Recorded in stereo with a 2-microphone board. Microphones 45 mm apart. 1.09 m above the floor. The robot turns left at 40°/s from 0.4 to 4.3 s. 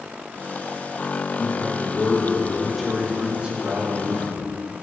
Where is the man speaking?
55° left, 1.5 m; by 4.4 s 65° right, 1.5 m.